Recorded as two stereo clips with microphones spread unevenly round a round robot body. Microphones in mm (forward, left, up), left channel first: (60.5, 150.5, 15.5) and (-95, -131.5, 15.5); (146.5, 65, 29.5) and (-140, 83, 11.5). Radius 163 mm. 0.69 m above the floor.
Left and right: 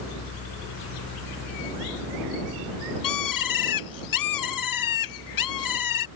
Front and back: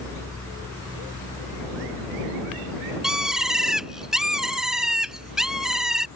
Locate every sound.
3.0 s a bird: 90° left